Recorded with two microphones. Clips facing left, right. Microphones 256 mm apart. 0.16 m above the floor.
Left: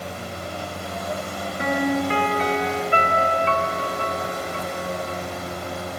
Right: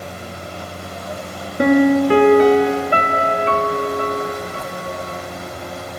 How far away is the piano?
About 0.7 m.